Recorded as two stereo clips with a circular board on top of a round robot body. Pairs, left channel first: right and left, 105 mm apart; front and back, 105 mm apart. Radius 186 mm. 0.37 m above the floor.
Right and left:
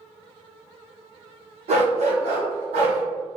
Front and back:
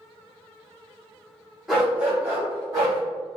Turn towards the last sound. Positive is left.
turn(degrees=120)